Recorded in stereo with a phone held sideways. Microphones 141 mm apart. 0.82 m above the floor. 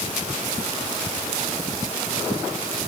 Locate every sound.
Only background noise.